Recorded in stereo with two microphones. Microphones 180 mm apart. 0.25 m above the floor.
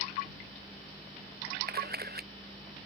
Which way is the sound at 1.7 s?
60° right (ahead or behind).